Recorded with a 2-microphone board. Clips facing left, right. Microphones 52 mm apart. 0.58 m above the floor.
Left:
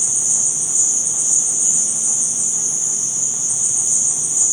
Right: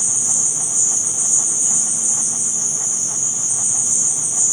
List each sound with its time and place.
0.0 s an insect: centre (ahead or behind), 1.2 m